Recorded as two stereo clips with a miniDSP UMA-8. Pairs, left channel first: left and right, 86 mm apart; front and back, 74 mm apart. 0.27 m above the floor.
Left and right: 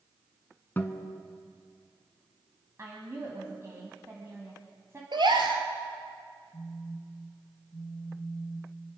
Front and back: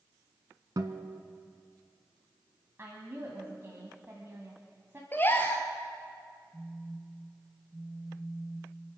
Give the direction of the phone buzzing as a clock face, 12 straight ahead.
9 o'clock.